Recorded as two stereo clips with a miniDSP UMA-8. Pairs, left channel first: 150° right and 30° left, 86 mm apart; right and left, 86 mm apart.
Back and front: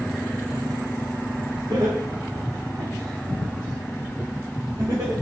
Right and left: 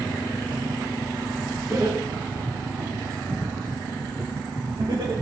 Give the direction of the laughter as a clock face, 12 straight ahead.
10 o'clock.